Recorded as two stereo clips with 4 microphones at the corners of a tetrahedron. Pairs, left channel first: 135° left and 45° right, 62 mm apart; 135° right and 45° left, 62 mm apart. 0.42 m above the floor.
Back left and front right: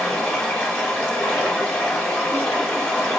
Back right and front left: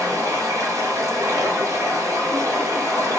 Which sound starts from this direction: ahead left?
Running water, at 0.0 s.